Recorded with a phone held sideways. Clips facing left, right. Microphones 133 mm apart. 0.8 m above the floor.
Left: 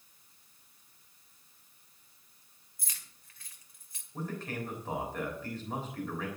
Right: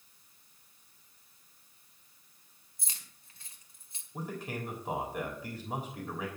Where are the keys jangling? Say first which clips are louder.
Right 1 dB; 25° right (ahead or behind), 2 m.